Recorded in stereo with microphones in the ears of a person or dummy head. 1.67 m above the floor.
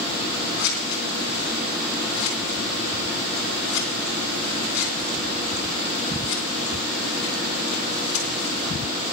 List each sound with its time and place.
0.6 s scissors: 70° left (ahead or behind), 3.5 m